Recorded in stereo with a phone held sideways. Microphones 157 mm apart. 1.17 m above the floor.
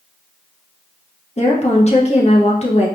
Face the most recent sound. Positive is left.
turn(degrees=45)  # may be behind; listen again after turning